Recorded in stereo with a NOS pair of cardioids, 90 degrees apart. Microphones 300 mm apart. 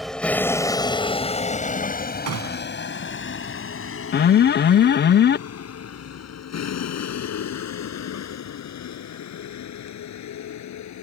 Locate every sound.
0.0 s a vehicle: straight ahead; by 11.0 s 65° left
2.3 s a gunshot: 55° right
4.1 s an alarm: 35° left